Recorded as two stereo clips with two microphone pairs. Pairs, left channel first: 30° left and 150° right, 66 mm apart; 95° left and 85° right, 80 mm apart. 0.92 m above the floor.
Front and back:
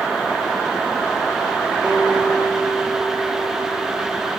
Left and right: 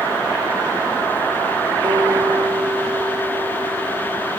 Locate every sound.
1.8 s a guitar: 70° right, 1.5 m